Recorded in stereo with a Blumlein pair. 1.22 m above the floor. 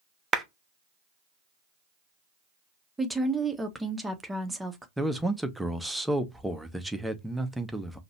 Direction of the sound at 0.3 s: 15° right.